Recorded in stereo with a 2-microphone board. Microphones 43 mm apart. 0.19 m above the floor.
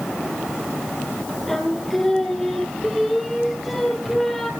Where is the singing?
5° left (ahead or behind), 2.5 m.